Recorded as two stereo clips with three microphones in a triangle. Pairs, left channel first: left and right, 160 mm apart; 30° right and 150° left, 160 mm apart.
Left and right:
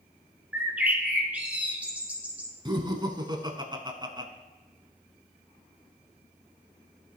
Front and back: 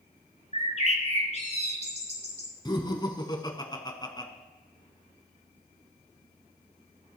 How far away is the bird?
About 1.4 m.